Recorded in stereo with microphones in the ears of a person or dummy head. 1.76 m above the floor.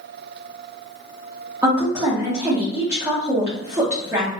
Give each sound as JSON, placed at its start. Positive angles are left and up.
{"t": 1.6, "sound": "a woman speaking", "side_deg": -15, "distance_m": 0.6}